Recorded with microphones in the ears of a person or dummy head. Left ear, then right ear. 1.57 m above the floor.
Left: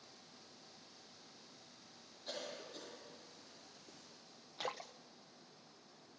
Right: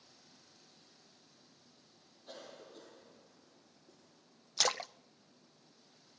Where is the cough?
60° left (ahead or behind), 4 m.